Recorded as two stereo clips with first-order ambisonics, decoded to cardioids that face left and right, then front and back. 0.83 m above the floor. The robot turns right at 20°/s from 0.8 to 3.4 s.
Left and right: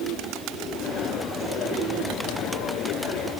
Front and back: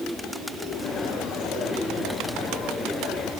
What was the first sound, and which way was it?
Only background noise.